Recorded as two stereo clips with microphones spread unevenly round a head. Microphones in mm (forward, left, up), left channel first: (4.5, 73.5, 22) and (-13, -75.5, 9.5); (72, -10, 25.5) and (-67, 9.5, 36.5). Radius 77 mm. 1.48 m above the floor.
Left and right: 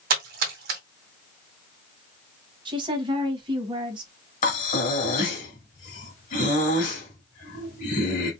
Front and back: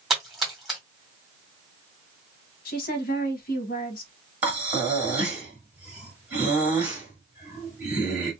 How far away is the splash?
About 1.8 m.